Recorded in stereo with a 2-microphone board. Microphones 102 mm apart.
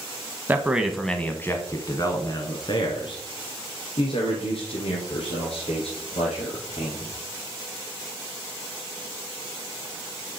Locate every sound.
0.5 s a man speaking: 20° right (ahead or behind), 1.1 m; by 7.1 s 75° left (ahead or behind), 5 m